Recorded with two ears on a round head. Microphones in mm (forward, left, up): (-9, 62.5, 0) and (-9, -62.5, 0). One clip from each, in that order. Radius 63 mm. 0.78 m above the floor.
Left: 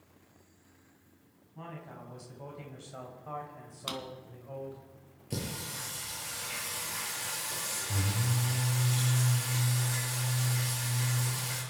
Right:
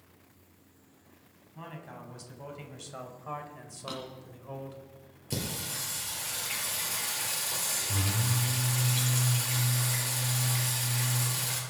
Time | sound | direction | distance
1.6 | a man speaking | 25° right (ahead or behind) | 4.5 m
3.9 | a drawer | 80° left | 3 m
5.3 | singing | 30° right (ahead or behind) | 6.5 m